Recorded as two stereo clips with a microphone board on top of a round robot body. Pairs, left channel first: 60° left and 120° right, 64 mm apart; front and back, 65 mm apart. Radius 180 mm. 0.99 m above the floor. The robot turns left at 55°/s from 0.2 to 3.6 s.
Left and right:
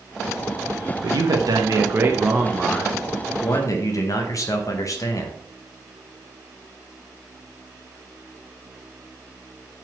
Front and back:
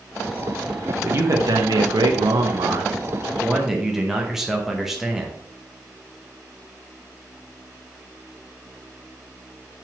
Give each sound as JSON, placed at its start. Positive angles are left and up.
{"t": 1.0, "sound": "a man speaking", "azimuth_deg": -120, "distance_m": 1.1}